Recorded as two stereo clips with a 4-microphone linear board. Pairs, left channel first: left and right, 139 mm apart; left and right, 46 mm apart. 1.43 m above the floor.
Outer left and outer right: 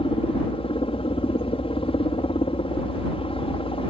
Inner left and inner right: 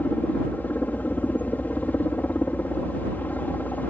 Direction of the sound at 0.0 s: 40° left (ahead or behind).